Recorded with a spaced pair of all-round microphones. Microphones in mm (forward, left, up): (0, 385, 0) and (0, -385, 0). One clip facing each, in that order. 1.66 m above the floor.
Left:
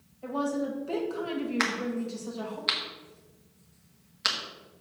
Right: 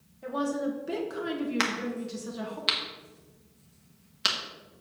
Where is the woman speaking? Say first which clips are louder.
Even; 50° right (ahead or behind), 1.7 m.